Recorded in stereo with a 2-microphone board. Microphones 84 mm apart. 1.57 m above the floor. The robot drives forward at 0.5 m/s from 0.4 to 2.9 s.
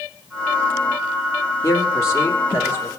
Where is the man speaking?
40° left (ahead or behind), 2.5 m; by 2.9 s 30° left (ahead or behind), 3 m.